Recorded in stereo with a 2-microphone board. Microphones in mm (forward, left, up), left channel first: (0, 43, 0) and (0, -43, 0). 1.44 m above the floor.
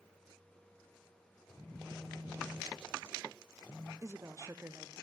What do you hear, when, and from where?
1.5 s a phone buzzing: 45° left (ahead or behind), 4.5 m
4.0 s a woman speaking: 35° right (ahead or behind), 0.5 m